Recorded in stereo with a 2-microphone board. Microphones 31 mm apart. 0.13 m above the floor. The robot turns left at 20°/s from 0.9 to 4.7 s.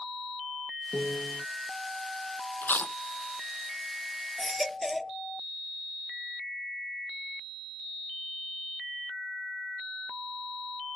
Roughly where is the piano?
Left.